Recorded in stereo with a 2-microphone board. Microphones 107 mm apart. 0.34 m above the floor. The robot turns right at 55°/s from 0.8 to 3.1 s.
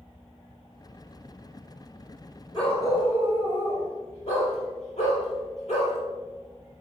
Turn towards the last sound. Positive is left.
turn(degrees=80)